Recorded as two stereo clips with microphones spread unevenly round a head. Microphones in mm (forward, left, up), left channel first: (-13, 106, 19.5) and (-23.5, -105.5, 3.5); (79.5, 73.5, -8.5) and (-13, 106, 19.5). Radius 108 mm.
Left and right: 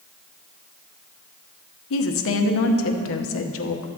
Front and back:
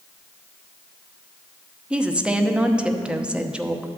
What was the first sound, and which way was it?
A woman speaking, 70° left.